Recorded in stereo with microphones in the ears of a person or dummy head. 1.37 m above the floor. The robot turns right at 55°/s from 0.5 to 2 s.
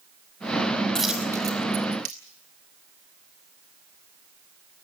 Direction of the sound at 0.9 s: 10° left (ahead or behind).